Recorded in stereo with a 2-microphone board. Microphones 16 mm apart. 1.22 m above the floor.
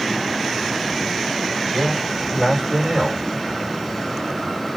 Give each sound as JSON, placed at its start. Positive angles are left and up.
{"t": 1.7, "sound": "a man speaking", "side_deg": -60, "distance_m": 5.0}